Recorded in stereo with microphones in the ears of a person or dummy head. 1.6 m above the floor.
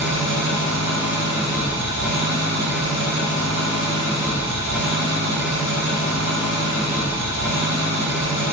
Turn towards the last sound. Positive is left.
turn(degrees=-75)  # may be behind; listen again after turning